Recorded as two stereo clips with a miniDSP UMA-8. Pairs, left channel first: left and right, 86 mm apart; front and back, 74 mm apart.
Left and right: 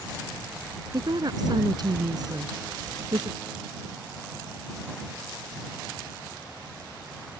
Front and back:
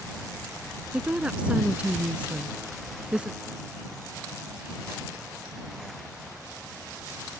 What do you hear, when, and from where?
0.9 s a woman speaking: 110° right